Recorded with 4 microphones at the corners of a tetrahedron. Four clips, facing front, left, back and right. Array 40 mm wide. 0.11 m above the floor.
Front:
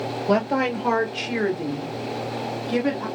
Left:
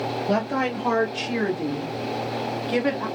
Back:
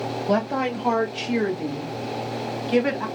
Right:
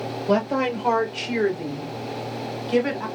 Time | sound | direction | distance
0.3 | a woman speaking | 5° right | 2.5 m